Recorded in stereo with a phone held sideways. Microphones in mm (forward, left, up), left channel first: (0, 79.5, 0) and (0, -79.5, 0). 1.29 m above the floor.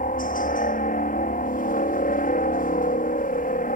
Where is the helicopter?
60° left (ahead or behind).